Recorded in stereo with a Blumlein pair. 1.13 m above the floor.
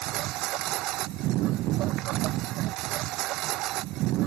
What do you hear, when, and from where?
0.0 s a lawn mower: 40° right